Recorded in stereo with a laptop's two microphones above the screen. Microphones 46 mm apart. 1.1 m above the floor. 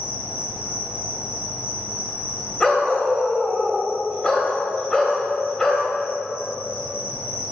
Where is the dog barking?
15° left (ahead or behind), 1.4 m.